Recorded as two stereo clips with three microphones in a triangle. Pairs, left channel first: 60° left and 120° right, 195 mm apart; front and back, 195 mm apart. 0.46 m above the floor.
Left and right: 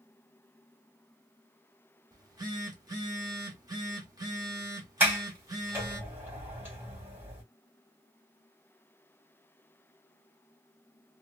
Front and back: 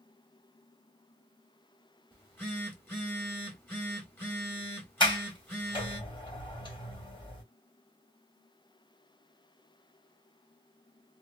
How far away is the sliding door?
About 1.5 m.